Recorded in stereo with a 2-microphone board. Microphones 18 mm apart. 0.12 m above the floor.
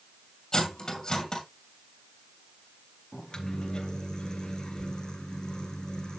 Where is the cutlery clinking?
35° left (ahead or behind), 2 m.